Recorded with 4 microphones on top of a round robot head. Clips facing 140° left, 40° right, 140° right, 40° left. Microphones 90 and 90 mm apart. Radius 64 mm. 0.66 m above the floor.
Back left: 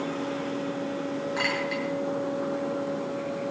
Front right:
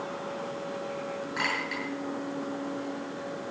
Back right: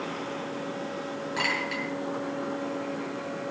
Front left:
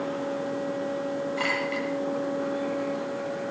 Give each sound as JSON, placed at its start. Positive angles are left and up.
{"t": 1.4, "sound": "a clink", "azimuth_deg": -135, "distance_m": 9.5}